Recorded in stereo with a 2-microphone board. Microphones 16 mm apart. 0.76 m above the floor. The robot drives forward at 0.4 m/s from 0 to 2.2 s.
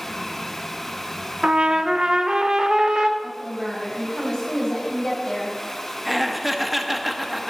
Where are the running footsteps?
I don't hear running footsteps.